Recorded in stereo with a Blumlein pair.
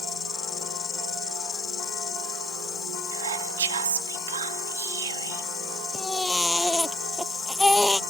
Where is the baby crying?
5° left.